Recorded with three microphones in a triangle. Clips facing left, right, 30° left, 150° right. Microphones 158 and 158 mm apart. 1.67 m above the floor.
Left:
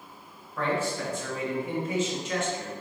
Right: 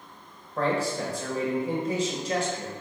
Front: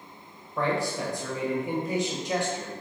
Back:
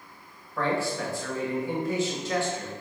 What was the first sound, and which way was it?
A man speaking, 40° right.